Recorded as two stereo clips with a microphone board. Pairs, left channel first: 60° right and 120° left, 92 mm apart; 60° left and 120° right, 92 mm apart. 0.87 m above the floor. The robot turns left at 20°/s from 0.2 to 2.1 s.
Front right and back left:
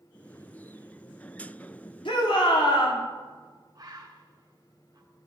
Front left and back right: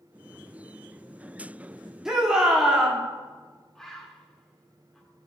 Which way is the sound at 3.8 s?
140° left.